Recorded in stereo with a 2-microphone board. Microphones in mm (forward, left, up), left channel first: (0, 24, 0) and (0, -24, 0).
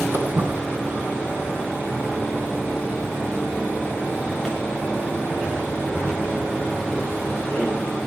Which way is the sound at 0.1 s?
60° right (ahead or behind).